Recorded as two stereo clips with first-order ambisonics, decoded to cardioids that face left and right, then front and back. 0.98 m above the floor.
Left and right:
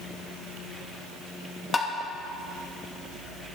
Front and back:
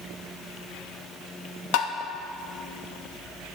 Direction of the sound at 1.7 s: 15° left.